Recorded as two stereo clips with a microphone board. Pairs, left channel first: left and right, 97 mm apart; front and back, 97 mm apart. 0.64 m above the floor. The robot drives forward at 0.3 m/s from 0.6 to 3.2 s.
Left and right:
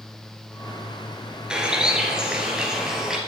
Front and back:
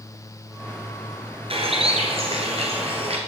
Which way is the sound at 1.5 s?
170° right.